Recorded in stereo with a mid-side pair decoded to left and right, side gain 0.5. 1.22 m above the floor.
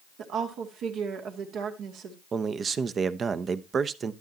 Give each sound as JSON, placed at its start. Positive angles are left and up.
{"t": 0.2, "sound": "a woman speaking", "azimuth_deg": -70, "distance_m": 2.0}
{"t": 2.3, "sound": "a man speaking", "azimuth_deg": -40, "distance_m": 0.8}